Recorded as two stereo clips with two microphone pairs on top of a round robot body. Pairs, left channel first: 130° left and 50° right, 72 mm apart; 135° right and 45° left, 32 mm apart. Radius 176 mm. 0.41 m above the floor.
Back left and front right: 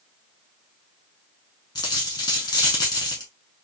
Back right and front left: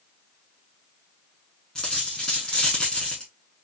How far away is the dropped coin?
About 0.5 m.